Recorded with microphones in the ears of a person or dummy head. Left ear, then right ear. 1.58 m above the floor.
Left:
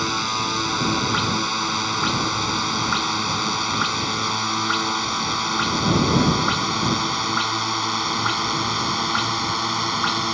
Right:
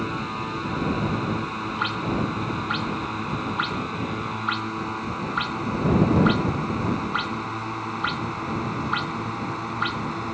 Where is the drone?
80° left; by 10.3 s 70° left (ahead or behind).